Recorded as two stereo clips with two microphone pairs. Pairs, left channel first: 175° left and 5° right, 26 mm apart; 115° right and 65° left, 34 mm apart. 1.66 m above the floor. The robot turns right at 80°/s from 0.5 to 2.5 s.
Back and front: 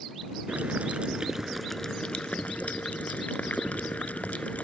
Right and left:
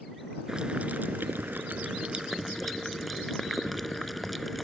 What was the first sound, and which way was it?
Boiling, straight ahead.